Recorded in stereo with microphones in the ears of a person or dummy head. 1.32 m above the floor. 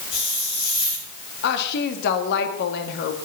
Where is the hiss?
90° left, 9 m.